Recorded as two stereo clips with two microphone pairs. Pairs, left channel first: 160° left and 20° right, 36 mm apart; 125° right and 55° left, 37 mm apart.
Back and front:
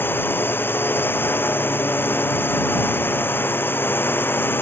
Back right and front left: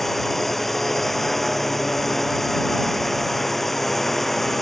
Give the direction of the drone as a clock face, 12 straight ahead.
7 o'clock.